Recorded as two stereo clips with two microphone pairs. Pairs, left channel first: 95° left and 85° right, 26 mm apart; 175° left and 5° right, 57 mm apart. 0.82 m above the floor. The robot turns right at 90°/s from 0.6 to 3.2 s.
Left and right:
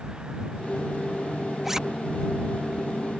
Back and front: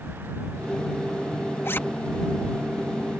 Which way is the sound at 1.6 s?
165° right.